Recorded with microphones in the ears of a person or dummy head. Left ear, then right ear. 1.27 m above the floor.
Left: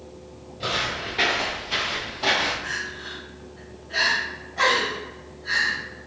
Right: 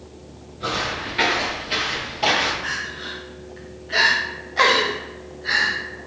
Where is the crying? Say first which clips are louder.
Right 3 dB; 55° right (ahead or behind), 0.9 m.